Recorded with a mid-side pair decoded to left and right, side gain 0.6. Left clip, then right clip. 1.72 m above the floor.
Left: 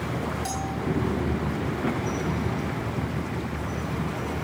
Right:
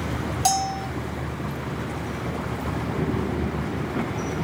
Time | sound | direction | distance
0.5 | a bell | 60° right | 2.5 m